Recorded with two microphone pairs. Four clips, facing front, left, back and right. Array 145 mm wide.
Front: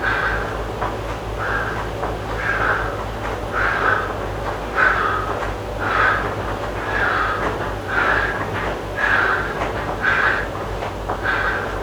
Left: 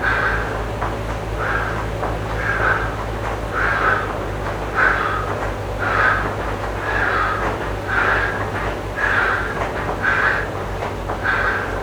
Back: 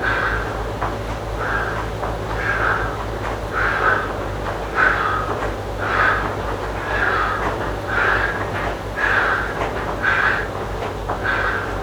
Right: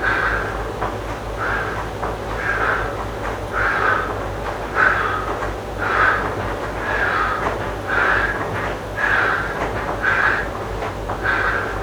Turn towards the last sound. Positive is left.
No sound to turn to.